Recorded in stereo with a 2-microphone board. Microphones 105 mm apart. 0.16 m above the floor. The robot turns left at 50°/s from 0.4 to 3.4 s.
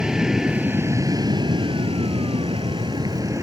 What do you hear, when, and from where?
0.0 s an aircraft: 10° right (ahead or behind); by 3.4 s 30° right (ahead or behind)